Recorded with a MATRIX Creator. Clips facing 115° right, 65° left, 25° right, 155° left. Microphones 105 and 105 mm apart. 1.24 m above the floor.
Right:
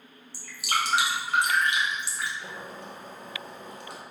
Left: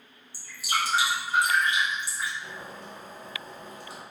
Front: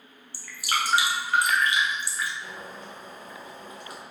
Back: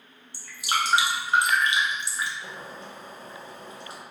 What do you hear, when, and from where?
0.3 s dripping: 135° right, 0.6 m
2.4 s boiling: 140° right, 0.7 m